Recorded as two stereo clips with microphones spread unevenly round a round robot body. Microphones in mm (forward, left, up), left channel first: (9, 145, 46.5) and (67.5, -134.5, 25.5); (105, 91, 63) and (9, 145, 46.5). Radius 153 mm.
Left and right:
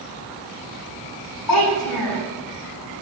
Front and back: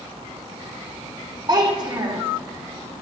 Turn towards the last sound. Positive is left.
turn(degrees=100)